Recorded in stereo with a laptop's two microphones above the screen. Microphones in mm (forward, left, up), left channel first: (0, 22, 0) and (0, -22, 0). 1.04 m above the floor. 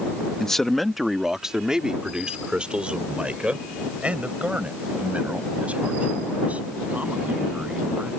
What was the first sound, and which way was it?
A man speaking, 15° left (ahead or behind).